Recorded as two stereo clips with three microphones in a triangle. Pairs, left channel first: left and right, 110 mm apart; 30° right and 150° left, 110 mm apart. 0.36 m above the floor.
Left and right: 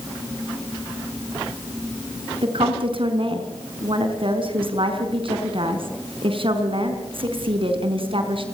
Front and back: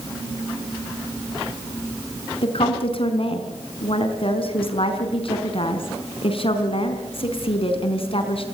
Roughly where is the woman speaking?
Ahead right.